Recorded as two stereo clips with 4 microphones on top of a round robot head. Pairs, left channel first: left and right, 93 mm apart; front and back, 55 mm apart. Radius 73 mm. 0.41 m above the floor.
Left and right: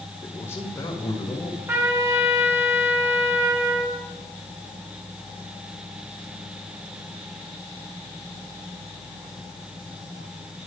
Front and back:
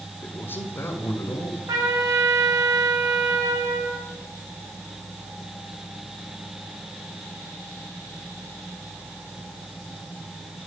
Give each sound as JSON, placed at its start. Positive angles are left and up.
{"t": 0.2, "sound": "a man speaking", "azimuth_deg": 35, "distance_m": 1.3}
{"t": 1.7, "sound": "a trumpet", "azimuth_deg": -155, "distance_m": 5.5}